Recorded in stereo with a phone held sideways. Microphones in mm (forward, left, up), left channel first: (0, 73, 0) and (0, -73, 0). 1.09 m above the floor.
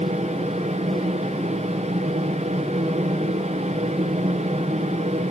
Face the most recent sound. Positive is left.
turn(degrees=-50)  # may be behind; listen again after turning